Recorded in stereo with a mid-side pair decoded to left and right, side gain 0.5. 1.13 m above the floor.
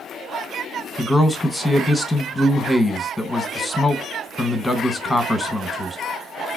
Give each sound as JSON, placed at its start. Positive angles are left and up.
{"t": 1.0, "sound": "a man speaking", "azimuth_deg": 15, "distance_m": 0.9}